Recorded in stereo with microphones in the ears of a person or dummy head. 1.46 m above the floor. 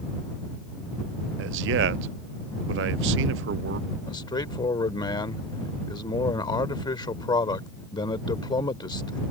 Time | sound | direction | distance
1.4 | a man speaking | 65° right (ahead or behind) | ?
4.1 | a man speaking | 30° left (ahead or behind) | ?